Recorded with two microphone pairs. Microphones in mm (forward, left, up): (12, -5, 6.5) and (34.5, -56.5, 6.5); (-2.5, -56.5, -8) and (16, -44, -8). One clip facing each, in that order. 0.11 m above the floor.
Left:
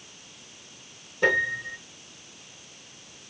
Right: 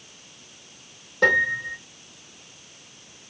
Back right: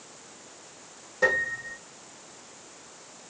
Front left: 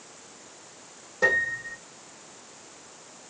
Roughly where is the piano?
Ahead right.